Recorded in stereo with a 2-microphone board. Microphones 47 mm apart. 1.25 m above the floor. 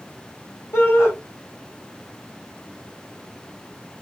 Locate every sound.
0.7 s a shout: 85° left, 1.5 m